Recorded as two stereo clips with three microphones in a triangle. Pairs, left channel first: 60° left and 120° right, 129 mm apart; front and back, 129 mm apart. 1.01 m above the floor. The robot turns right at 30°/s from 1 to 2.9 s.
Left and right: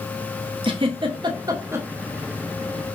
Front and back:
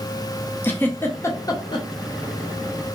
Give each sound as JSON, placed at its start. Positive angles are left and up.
{"t": 0.6, "sound": "a giggle", "azimuth_deg": -75, "distance_m": 0.7}